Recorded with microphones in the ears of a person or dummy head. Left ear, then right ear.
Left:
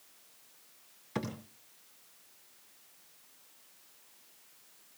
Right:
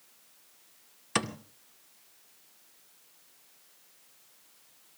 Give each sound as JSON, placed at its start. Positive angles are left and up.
{"t": 1.1, "sound": "a thud", "side_deg": -50, "distance_m": 1.9}